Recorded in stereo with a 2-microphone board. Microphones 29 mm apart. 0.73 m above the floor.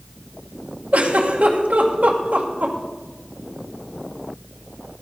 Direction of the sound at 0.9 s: 65° right (ahead or behind).